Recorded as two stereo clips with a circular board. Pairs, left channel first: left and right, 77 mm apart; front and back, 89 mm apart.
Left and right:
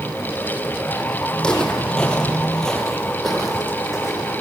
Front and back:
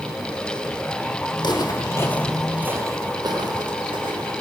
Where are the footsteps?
10° left, 1.9 m; by 4.3 s straight behind, 3 m.